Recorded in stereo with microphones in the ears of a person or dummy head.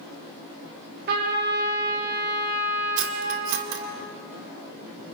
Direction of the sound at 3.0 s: 70° right (ahead or behind).